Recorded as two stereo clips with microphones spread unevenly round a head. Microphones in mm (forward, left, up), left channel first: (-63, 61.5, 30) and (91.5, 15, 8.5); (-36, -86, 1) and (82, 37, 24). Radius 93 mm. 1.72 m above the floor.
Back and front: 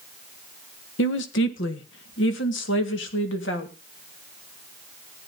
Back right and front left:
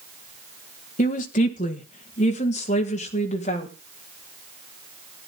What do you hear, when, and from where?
1.0 s a woman speaking: 170° left, 1.6 m